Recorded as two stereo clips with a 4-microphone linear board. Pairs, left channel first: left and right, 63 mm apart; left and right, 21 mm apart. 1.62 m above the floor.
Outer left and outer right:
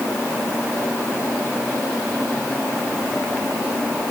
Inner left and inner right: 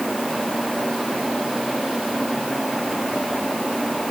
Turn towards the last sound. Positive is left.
No sound to turn to.